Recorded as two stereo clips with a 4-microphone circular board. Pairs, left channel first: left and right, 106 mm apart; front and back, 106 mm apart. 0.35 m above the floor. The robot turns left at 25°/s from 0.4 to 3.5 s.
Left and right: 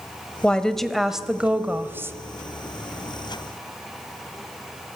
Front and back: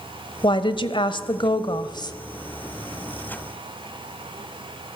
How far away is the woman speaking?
About 1.3 m.